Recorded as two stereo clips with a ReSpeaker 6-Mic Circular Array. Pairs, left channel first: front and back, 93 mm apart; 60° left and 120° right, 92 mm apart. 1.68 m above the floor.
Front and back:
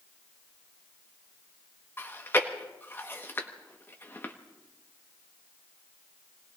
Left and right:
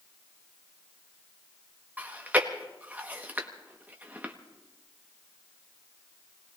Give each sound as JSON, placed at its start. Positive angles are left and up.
{"t": 2.0, "sound": "chewing", "azimuth_deg": -55, "distance_m": 1.1}